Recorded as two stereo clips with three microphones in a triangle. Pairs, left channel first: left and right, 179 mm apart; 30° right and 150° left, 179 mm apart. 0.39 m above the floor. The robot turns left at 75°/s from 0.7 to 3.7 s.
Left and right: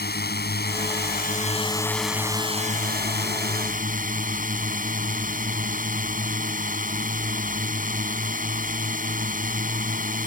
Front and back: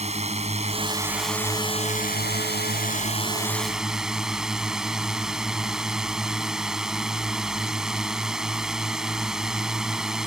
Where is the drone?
100° left; by 10.3 s 125° right.